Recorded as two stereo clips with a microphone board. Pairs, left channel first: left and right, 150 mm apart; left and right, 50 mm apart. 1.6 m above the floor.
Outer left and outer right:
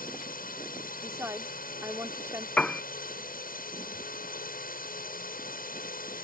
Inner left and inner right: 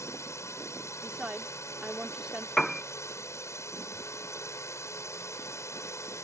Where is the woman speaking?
15° right (ahead or behind).